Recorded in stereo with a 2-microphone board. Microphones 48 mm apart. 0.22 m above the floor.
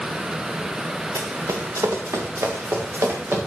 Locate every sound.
1.1 s running footsteps: 75° right (ahead or behind), 1.4 m; by 3.5 s 55° right (ahead or behind), 3.5 m